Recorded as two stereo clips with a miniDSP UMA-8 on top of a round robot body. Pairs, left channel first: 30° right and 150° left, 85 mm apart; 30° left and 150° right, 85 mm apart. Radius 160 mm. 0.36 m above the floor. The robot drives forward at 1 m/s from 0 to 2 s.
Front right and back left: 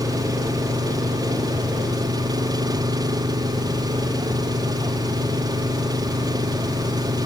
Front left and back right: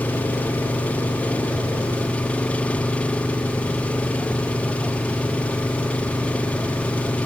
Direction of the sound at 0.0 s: 100° left.